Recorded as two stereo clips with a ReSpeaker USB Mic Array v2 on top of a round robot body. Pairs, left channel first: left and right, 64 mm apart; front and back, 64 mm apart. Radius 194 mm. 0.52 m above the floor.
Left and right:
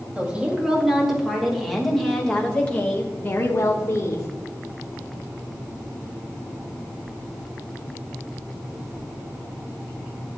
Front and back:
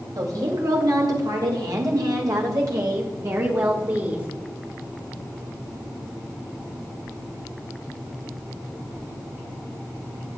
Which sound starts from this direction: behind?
A woman speaking, at 0.1 s.